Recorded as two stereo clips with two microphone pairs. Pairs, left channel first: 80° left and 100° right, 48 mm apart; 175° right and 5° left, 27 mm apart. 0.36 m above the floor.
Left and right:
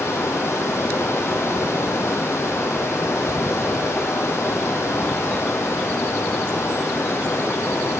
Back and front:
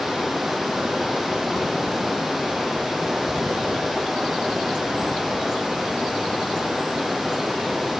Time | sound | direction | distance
0.0 | running water | 90° left | 1.5 m